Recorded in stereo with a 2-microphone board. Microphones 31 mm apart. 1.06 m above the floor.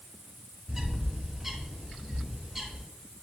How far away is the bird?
About 1.6 m.